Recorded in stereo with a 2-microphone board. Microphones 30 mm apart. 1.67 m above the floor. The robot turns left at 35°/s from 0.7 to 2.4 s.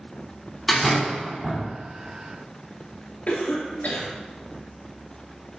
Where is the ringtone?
No ringtone in this recording.